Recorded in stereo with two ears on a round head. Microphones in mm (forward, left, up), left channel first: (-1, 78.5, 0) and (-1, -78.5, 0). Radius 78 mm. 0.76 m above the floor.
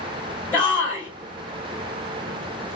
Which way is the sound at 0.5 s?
10° left (ahead or behind).